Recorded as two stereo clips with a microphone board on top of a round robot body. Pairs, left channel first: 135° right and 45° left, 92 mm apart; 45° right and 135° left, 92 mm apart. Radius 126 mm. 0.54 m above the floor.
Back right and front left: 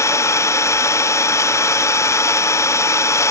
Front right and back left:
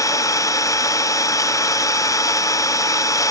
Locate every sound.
0.0 s an engine running: 85° right, 0.8 m